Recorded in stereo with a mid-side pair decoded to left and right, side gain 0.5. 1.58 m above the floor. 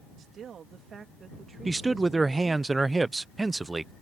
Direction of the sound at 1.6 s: 20° right.